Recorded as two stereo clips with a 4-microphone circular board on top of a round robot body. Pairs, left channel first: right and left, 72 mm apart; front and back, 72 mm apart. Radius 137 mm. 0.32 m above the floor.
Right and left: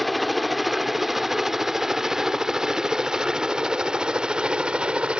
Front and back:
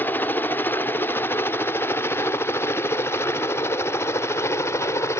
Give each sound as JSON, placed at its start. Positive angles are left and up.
{"t": 0.0, "sound": "a helicopter", "azimuth_deg": 0}